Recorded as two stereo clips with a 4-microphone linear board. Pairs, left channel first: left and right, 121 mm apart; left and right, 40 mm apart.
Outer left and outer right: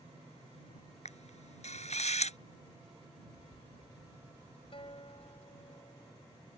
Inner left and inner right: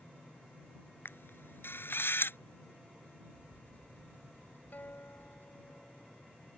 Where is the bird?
60° left (ahead or behind).